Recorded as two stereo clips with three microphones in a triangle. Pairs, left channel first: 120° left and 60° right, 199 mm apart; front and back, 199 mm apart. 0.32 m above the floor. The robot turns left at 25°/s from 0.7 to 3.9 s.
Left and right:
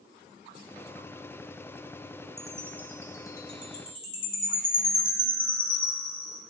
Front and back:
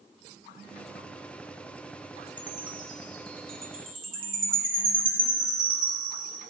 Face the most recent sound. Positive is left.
turn(degrees=170)